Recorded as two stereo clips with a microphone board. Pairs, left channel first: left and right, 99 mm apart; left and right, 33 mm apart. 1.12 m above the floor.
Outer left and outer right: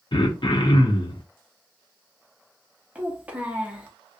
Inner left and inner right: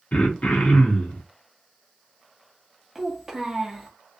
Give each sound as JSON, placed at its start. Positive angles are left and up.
{"t": 0.1, "sound": "throat clearing", "side_deg": 55, "distance_m": 0.6}
{"t": 3.0, "sound": "a child speaking", "side_deg": -15, "distance_m": 0.8}